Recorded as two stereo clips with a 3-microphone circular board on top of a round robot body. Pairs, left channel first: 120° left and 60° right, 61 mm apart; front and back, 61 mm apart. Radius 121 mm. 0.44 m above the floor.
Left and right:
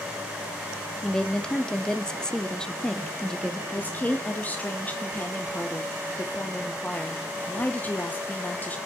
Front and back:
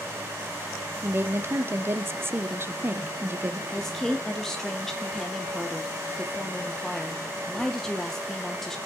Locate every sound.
1.0 s a woman speaking: 170° right, 1.0 m
3.7 s a woman speaking: 80° left, 1.2 m